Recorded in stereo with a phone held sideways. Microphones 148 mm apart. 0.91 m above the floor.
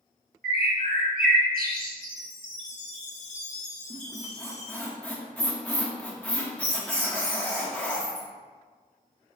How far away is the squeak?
About 1.0 m.